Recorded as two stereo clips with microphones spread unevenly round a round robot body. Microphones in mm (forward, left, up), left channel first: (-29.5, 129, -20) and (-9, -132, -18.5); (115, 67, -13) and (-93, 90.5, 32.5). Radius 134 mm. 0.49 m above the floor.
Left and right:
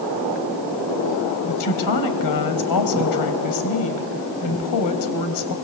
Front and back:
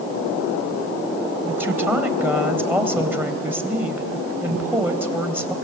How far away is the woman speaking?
About 3 m.